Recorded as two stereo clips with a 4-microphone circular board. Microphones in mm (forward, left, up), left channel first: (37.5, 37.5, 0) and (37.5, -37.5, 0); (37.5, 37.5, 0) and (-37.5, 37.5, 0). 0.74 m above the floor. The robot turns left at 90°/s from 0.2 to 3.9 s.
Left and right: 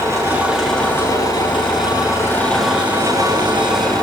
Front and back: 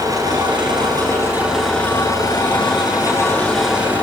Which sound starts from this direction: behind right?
An engine running, at 0.0 s.